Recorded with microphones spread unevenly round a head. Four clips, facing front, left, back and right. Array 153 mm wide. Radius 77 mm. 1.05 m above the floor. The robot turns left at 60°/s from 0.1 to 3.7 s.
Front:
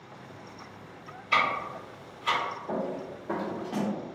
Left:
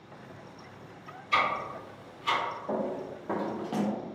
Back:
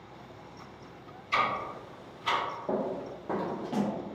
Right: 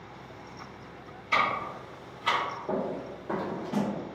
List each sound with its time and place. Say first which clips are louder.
1.3 s ticking: even, front 2 dB; 35° right, 1.3 m; by 2.4 s 100° right, 1.3 m
2.7 s running footsteps: even, back 1 dB; 155° right, 1.2 m; by 3.9 s 80° left, 1.2 m